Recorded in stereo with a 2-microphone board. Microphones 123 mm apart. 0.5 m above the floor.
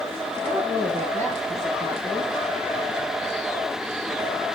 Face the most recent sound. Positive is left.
turn(degrees=-80)